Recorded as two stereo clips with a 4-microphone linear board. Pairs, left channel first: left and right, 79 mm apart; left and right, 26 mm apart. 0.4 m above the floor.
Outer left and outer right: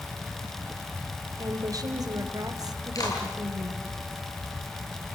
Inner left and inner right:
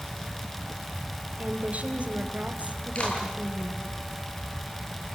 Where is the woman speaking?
50° right (ahead or behind), 2 m.